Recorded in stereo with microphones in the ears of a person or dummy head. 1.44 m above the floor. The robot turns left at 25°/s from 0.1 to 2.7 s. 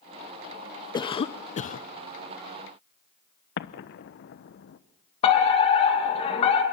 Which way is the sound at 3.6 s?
70° left (ahead or behind).